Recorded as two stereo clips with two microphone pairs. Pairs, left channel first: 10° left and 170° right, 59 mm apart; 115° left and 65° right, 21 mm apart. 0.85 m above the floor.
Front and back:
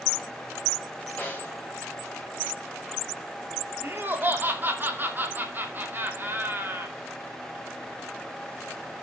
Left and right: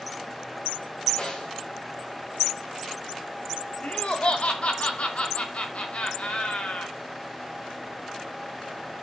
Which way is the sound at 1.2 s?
75° left.